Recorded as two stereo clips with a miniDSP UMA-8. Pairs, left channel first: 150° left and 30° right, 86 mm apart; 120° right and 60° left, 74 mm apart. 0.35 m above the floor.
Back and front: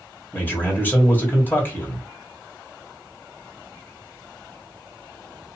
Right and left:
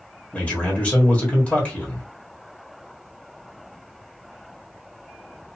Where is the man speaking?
175° right, 1.2 m.